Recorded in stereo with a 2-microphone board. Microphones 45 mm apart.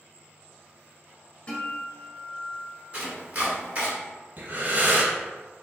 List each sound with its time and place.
1.5 s a guitar: 25° left (ahead or behind), 1.3 m
2.9 s chopping: 35° right (ahead or behind), 1.4 m
4.4 s breathing: 45° right (ahead or behind), 1.6 m